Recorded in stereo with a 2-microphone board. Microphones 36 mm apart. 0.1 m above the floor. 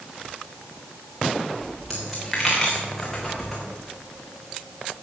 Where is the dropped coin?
5° left (ahead or behind), 3 m.